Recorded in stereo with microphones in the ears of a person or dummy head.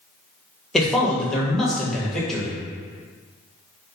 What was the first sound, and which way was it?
A man speaking, 5° left (ahead or behind).